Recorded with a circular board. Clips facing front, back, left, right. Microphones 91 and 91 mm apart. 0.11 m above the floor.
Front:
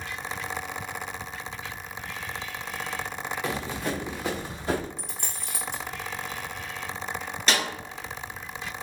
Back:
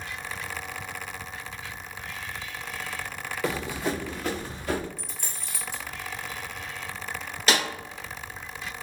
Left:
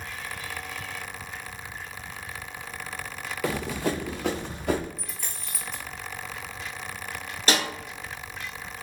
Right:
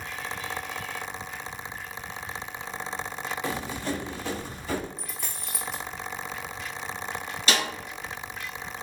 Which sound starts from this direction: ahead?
A dropped coin, at 5.0 s.